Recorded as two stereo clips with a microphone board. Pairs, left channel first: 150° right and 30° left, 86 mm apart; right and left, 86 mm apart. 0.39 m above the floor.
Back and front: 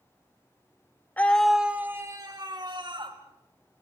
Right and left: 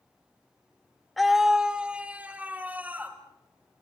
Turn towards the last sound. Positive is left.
turn(degrees=20)